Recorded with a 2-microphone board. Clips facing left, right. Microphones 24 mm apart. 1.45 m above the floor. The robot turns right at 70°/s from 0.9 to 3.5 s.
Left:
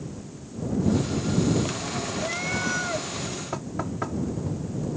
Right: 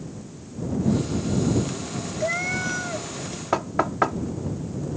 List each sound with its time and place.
2.2 s a cat meowing: 35° right; by 3.1 s 25° left
3.5 s knocking: 45° right (ahead or behind)